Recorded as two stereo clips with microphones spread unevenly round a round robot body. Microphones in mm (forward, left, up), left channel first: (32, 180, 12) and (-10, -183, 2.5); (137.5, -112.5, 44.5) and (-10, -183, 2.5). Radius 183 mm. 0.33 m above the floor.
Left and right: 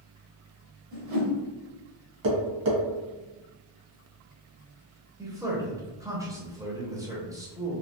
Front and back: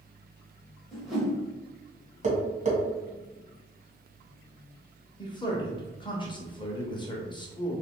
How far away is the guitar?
No guitar in this recording.